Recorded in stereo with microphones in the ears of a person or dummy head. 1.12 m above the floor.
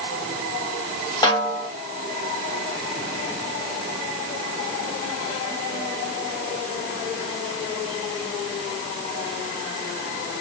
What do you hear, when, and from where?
1.2 s a snare drum: 20° left (ahead or behind), 1.4 m